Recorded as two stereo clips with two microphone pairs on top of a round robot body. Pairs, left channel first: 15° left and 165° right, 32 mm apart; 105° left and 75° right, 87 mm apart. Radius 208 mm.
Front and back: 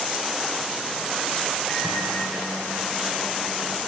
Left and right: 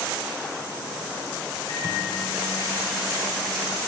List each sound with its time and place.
1.7 s a microwave: 90° left, 5 m